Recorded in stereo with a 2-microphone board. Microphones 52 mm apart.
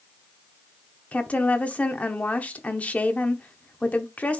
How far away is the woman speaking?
About 0.9 m.